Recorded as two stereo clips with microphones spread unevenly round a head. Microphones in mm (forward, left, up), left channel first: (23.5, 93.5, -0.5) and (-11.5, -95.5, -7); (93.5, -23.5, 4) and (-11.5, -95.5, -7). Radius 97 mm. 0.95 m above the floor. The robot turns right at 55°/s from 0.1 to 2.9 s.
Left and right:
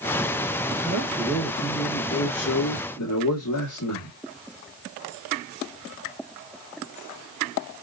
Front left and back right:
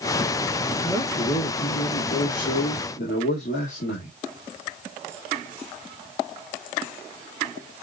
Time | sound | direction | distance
0.8 | a man speaking | 40° right | 1.6 m